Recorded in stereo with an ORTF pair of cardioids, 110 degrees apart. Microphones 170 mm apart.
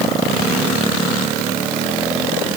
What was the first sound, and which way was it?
Only background noise.